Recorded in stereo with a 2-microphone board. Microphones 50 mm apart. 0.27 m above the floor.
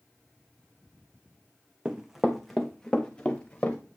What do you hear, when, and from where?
1.9 s running footsteps: 15° right (ahead or behind), 1.2 m; by 3.8 s 25° left (ahead or behind), 2 m